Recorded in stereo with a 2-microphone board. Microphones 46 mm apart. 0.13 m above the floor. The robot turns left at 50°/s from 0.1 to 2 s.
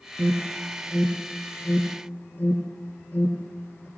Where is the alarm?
30° right (ahead or behind), 4 m; by 3.9 s 45° left (ahead or behind), 4 m.